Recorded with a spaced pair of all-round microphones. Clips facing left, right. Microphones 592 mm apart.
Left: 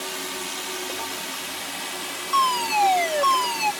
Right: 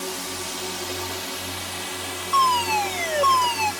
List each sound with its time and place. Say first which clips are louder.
0.0 s a drone: right 2 dB; 65° right (ahead or behind)
2.3 s a fire alarm: right 1 dB; 15° left (ahead or behind)